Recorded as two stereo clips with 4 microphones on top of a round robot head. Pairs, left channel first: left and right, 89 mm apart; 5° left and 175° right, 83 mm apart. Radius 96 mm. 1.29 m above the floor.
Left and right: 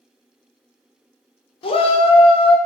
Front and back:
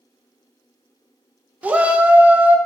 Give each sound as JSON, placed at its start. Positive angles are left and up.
{"t": 1.6, "sound": "a shout", "azimuth_deg": 110, "distance_m": 0.5}